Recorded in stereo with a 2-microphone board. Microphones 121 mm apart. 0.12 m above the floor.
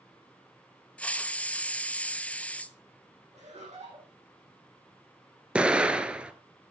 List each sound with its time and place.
1.0 s a hiss: 10° left (ahead or behind), 0.6 m
3.3 s laughter: 60° right (ahead or behind), 5.5 m
5.5 s an explosion: 10° right (ahead or behind), 1.0 m